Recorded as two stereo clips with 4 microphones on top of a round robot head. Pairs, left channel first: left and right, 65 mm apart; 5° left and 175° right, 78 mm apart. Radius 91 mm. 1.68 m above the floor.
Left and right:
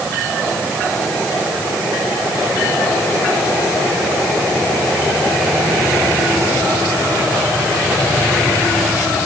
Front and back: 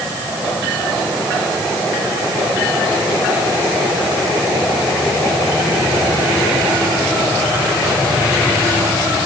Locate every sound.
Only background noise.